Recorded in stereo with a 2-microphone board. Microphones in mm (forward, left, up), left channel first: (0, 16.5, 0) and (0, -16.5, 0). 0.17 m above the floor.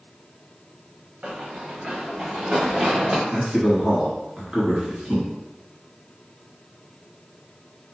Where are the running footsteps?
40° right (ahead or behind), 1.2 m; by 3.2 s 35° right (ahead or behind), 3 m.